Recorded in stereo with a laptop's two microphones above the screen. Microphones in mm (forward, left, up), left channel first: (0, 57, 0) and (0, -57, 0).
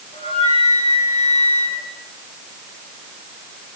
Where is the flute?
65° left (ahead or behind), 6 m.